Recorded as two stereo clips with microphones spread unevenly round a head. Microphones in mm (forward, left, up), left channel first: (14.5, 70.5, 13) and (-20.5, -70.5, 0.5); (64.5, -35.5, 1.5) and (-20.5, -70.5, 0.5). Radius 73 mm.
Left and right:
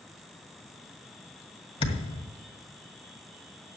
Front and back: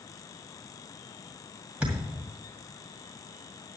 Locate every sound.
1.8 s a thud: 120° left, 1.8 m